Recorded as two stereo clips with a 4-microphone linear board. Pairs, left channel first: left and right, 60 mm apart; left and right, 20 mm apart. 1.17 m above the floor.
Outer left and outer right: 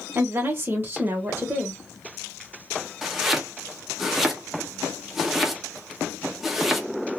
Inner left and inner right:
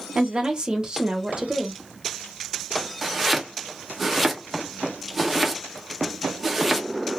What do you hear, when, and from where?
0.1 s a woman speaking: 40° right (ahead or behind), 1.1 m
3.0 s chopping: 5° right (ahead or behind), 0.7 m